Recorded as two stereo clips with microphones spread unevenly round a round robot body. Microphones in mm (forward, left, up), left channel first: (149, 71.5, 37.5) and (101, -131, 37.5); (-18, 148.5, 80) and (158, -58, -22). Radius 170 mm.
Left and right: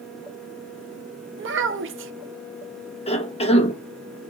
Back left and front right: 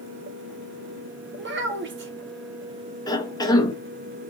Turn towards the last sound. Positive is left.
turn(degrees=35)